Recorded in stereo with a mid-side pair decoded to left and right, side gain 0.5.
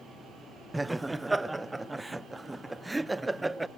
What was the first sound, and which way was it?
Laughter, 20° right.